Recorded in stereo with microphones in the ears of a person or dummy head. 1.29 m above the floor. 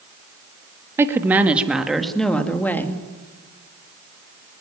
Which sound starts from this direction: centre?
A woman speaking, at 1.0 s.